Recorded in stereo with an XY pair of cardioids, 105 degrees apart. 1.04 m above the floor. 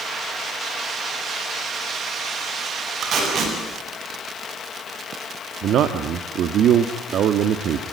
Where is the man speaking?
65° right, 1.5 m.